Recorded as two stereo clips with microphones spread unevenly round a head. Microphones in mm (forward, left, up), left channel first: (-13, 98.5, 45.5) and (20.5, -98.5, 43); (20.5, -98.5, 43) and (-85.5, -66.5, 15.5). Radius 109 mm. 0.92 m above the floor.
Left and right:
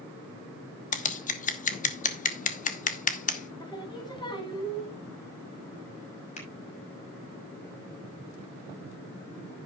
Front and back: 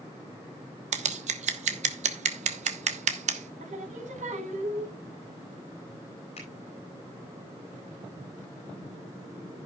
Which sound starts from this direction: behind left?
Scissors, at 0.9 s.